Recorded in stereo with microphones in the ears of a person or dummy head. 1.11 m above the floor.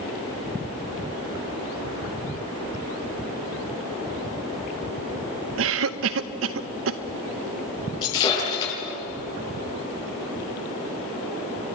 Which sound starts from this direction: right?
A cough, at 5.6 s.